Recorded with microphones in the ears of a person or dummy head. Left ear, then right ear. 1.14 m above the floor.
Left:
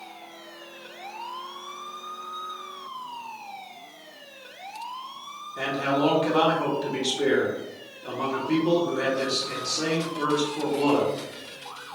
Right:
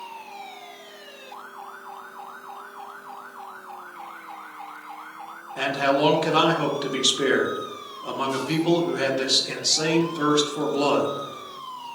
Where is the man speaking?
25° right (ahead or behind), 0.8 m.